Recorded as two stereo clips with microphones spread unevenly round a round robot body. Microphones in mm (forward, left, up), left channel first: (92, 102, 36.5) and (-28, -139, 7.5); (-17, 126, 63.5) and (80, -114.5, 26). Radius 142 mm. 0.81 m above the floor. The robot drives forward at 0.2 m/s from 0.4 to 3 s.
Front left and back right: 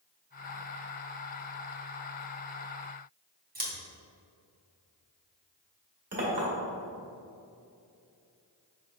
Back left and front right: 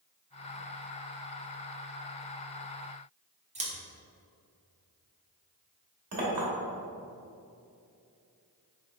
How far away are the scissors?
About 1.2 m.